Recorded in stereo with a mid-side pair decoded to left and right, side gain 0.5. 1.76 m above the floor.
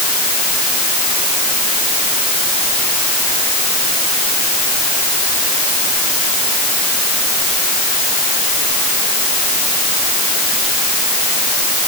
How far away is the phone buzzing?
No phone buzzing in this recording.